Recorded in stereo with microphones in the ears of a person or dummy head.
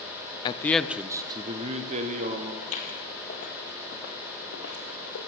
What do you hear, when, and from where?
0.5 s a man speaking: 30° left (ahead or behind), 0.6 m; by 2.5 s 45° right (ahead or behind), 1.5 m
2.6 s footsteps: 40° left (ahead or behind), 2 m; by 5.2 s 60° left (ahead or behind), 3 m